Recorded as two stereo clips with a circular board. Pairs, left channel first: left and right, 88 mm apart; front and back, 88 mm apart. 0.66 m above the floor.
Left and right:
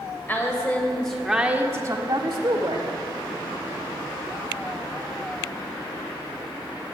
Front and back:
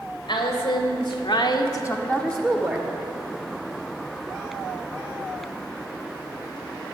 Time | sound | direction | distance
0.3 | a woman speaking | 25° left | 3 m